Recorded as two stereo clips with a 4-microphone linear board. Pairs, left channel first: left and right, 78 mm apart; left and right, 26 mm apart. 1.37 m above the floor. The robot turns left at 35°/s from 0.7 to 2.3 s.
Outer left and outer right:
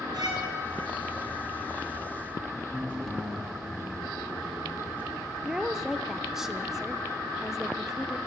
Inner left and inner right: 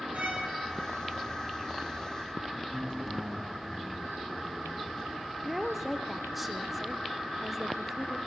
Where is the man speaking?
25° left (ahead or behind), 3.5 m.